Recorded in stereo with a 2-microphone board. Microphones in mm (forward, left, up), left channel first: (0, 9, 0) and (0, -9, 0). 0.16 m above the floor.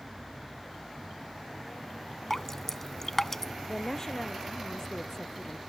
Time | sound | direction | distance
2.3 | dripping | 20° left (ahead or behind) | ?
3.7 | a woman speaking | 35° left (ahead or behind) | ?